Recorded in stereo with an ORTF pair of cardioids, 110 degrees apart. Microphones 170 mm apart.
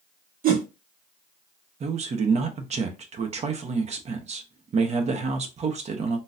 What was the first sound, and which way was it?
A whoosh, 55° right.